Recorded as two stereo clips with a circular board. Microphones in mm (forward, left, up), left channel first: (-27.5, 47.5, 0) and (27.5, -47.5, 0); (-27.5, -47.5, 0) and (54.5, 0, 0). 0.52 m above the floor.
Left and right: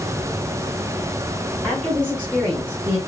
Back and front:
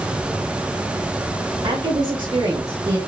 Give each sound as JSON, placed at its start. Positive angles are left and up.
{"t": 1.6, "sound": "a woman speaking", "azimuth_deg": 30, "distance_m": 2.5}